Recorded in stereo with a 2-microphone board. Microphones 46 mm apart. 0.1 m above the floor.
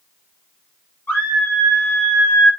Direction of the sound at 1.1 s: 40° left (ahead or behind).